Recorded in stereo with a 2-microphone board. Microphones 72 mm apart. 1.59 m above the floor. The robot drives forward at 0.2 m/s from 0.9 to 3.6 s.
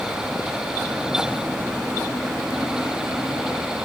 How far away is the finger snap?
No finger snap in this recording.